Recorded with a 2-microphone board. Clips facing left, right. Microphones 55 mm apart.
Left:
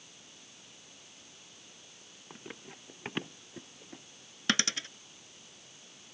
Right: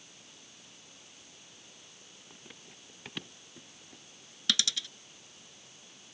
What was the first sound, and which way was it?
Running footsteps, 30° left (ahead or behind).